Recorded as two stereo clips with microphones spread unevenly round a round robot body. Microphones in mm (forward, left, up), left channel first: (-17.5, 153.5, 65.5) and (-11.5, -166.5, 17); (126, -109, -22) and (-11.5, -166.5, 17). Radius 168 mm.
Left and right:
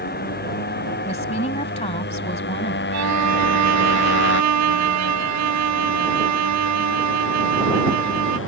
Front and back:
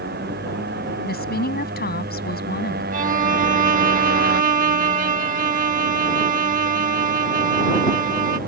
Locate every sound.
0.0 s a motorcycle: 155° left; by 8.5 s 145° left
1.0 s a woman speaking: 20° left
2.9 s a violin: 120° right